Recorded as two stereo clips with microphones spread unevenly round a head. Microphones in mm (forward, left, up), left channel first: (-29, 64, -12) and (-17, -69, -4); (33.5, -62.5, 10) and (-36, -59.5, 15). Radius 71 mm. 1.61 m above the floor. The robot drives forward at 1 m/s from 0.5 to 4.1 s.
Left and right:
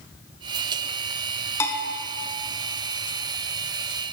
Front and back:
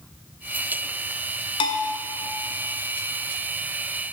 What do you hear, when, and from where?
1.6 s a bell: 20° left, 0.7 m; by 1.9 s 35° left, 0.5 m